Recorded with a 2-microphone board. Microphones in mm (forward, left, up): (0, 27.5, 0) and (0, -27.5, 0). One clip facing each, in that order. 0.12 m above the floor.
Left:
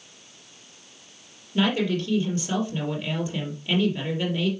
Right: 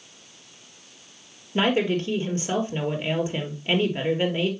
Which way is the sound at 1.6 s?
35° right (ahead or behind).